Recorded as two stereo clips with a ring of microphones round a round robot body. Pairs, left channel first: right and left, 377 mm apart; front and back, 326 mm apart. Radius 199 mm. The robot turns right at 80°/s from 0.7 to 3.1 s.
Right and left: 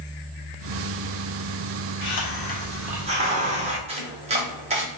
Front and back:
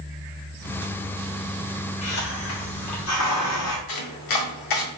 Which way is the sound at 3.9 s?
15° left.